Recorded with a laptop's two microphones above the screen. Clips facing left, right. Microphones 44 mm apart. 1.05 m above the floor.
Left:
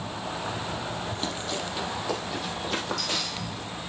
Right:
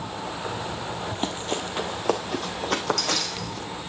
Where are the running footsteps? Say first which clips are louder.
Right 3 dB; 40° right (ahead or behind), 1.3 m; by 3.7 s 65° right (ahead or behind), 2.5 m.